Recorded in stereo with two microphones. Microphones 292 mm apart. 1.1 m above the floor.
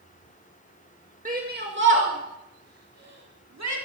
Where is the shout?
25° right (ahead or behind), 1.8 m; by 3.8 s 65° right (ahead or behind), 3.5 m.